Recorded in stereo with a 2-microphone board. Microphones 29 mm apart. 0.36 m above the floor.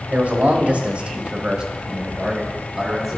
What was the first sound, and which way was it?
A man speaking, 50° right (ahead or behind).